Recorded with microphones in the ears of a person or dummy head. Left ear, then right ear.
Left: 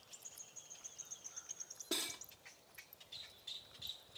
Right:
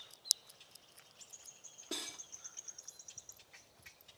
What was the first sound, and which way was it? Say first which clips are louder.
Cutlery clinking: left 2 dB; 20° left (ahead or behind).